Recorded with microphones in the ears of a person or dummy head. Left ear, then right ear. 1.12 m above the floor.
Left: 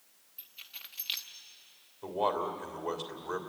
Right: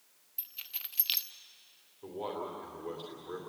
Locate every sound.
0.4 s keys jangling: 15° right (ahead or behind), 0.6 m
2.0 s a man speaking: 30° left (ahead or behind), 3 m